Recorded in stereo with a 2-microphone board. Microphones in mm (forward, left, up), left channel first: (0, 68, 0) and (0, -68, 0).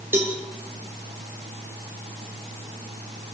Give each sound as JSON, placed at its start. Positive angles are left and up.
{"t": 0.1, "sound": "a cowbell", "side_deg": -15, "distance_m": 3.5}